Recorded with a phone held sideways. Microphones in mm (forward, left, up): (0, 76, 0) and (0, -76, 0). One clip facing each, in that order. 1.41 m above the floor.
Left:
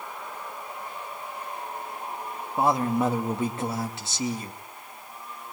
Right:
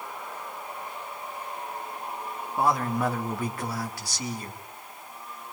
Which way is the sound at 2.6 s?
25° left (ahead or behind).